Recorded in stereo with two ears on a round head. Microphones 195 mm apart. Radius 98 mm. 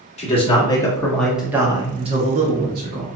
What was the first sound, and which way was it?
A man speaking, 30° left (ahead or behind).